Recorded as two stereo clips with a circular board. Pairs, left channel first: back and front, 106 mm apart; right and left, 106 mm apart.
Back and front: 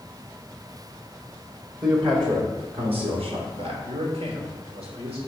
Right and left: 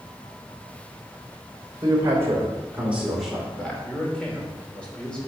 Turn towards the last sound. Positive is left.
turn(degrees=-10)